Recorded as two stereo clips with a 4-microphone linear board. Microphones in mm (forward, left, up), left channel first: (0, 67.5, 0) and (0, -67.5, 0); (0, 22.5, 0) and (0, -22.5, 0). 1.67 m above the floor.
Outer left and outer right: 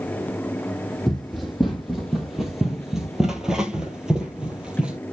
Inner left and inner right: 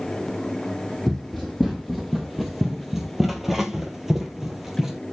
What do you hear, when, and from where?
1.1 s running footsteps: centre (ahead or behind), 2.5 m; by 5.0 s 10° right (ahead or behind), 1.8 m